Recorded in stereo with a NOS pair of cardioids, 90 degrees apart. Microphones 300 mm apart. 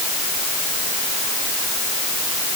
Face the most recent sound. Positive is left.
No sound to turn to.